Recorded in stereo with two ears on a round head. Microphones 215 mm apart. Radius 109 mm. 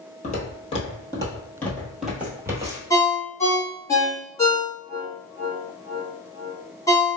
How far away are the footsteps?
About 1.5 m.